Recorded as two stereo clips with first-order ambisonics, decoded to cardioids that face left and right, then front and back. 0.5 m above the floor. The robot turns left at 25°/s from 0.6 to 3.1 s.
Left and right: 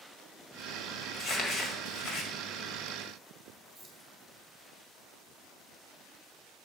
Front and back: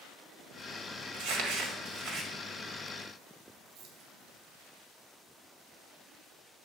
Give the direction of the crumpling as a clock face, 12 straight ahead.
7 o'clock.